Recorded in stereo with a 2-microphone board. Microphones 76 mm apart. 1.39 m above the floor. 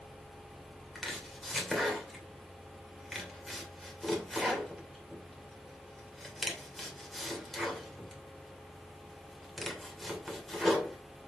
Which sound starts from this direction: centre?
Chopping, at 0.9 s.